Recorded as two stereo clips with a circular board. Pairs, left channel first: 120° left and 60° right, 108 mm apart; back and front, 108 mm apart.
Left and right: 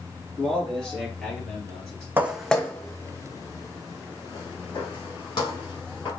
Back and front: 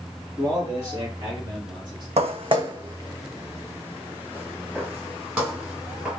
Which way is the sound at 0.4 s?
35° left.